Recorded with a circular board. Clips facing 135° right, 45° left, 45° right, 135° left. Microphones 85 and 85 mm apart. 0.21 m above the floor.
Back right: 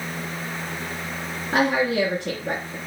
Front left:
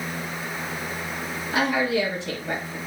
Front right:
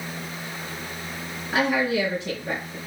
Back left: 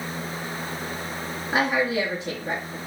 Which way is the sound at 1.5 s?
150° right.